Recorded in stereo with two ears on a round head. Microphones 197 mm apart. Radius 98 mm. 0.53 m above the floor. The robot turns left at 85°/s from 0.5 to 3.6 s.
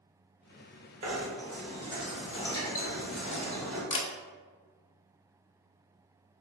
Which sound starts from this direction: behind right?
Knocking, at 1.0 s.